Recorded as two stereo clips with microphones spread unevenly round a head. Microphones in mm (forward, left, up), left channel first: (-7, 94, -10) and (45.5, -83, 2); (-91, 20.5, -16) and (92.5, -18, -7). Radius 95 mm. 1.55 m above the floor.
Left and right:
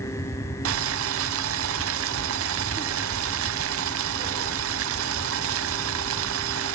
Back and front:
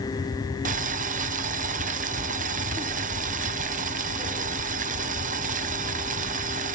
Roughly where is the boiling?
Ahead right.